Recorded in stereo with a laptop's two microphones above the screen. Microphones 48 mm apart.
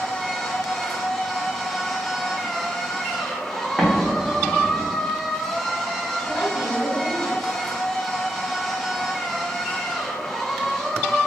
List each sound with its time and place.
0.0 s a machine running: centre (ahead or behind), 0.7 m
3.8 s an explosion: centre (ahead or behind), 1.0 m
6.2 s a woman speaking: 45° right (ahead or behind), 1.4 m